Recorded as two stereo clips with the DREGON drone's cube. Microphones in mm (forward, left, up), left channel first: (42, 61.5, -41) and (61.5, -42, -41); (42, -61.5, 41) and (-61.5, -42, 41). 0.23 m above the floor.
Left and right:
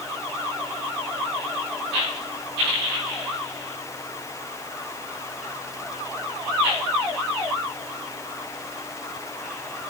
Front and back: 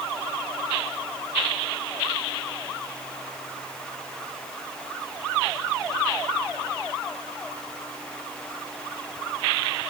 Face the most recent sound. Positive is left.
No sound to turn to.